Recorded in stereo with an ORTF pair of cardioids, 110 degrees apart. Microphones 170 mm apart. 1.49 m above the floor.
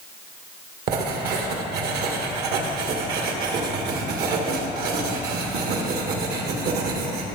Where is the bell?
I don't hear a bell.